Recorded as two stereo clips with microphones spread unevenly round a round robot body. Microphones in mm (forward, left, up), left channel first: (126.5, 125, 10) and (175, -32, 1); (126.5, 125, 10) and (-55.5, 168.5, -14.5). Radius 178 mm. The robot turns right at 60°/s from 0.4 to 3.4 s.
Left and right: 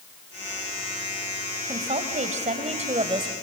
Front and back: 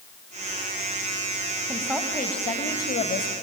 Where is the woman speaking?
120° right, 1.9 m; by 3.3 s 25° right, 1.9 m.